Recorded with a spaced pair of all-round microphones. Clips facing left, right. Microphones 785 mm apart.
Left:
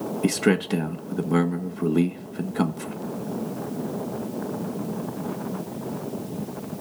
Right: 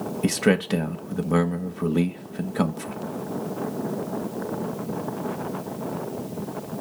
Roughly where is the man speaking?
Centre.